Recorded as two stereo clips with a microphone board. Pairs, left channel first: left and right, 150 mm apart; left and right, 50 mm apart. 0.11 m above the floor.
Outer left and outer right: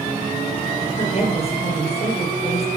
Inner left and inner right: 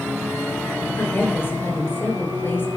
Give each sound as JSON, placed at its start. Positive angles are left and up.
{"t": 1.0, "sound": "a woman speaking", "side_deg": 45, "distance_m": 1.5}